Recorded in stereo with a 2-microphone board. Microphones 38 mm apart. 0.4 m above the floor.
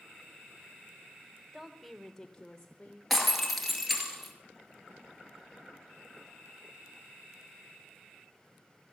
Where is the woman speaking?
Centre (ahead or behind), 1.2 m; by 3.0 s 20° left (ahead or behind), 1.4 m.